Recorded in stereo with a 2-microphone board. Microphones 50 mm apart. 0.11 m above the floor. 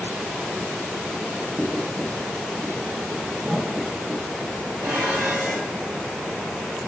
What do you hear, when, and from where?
1.6 s writing: 50° right (ahead or behind), 2 m
3.4 s a whoosh: 20° right (ahead or behind), 3.5 m
4.8 s dishes clattering: 65° right (ahead or behind), 2.5 m